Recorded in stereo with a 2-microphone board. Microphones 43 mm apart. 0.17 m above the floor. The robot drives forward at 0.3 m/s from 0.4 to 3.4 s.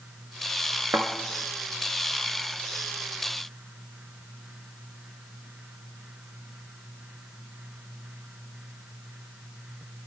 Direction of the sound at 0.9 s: 70° right (ahead or behind).